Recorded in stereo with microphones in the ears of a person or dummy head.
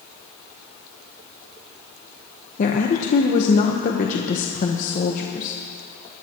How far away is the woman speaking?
About 1.1 m.